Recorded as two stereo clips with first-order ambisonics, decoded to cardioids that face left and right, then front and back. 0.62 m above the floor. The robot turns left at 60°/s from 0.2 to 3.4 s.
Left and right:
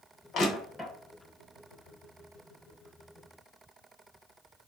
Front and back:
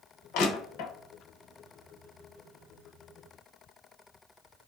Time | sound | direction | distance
0.3 | crushing | 35° left | 0.7 m